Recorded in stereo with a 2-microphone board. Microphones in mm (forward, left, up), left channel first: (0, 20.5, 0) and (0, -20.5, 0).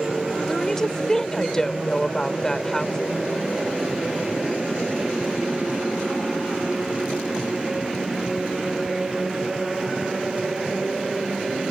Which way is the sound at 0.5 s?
15° left (ahead or behind).